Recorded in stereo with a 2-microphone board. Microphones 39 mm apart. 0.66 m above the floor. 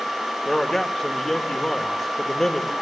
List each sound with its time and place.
0.5 s a man speaking: 10° left (ahead or behind), 2.5 m